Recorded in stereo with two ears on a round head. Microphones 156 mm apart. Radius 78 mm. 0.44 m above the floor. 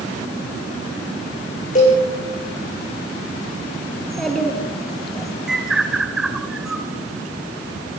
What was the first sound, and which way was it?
A cowbell, 40° left (ahead or behind).